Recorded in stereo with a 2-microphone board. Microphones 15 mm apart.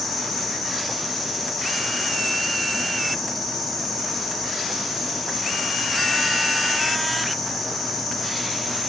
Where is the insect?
40° left (ahead or behind), 1.3 m.